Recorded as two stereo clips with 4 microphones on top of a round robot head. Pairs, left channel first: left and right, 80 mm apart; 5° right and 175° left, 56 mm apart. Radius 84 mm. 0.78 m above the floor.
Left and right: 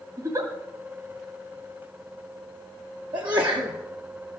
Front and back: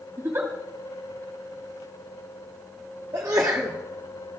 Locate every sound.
0.2 s a giggle: 130° right, 2.5 m
3.1 s a sneeze: 115° right, 1.7 m